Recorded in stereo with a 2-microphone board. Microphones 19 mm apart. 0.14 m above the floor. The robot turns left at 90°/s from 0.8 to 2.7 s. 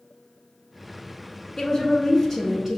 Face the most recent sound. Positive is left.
turn(degrees=-35)